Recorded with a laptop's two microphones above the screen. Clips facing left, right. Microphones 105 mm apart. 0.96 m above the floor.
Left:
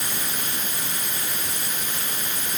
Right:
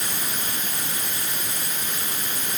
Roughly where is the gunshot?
No gunshot in this recording.